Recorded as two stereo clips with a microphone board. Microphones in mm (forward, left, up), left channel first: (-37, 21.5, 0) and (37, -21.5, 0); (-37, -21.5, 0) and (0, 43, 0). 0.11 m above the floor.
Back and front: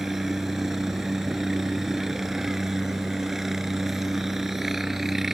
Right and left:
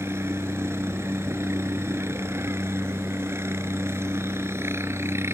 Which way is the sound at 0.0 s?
55° left.